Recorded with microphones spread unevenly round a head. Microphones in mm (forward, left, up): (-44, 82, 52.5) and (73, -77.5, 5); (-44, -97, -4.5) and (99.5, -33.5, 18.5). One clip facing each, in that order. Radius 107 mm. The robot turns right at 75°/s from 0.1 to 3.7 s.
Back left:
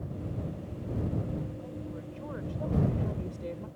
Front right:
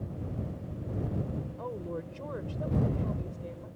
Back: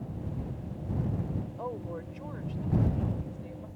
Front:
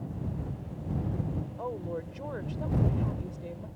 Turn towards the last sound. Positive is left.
turn(degrees=95)